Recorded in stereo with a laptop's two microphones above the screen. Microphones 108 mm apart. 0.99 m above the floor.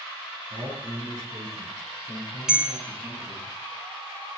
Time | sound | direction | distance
0.5 | a man speaking | 5° right (ahead or behind) | 7.5 m
2.5 | a bell | 5° right (ahead or behind) | 1.3 m